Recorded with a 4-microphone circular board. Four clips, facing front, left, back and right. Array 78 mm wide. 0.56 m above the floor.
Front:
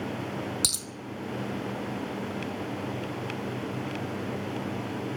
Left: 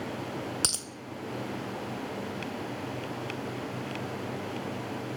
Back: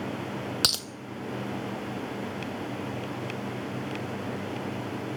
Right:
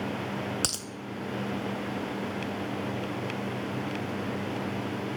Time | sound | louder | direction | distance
0.6 | a dropped coin | right 1 dB, back 5 dB | 175° right | 0.9 m